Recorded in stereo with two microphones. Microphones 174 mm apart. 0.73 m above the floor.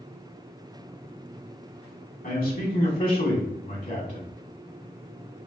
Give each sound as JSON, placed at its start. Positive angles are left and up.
{"t": 2.2, "sound": "a man speaking", "side_deg": 60, "distance_m": 2.5}